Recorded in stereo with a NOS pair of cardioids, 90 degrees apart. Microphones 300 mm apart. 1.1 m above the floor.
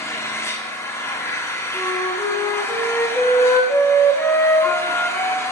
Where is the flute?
10° left, 1.4 m.